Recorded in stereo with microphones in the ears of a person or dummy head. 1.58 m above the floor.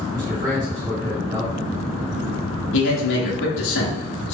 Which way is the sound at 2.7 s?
60° left (ahead or behind).